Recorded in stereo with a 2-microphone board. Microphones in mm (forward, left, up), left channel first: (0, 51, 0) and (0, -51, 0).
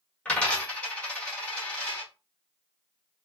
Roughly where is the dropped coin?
Centre.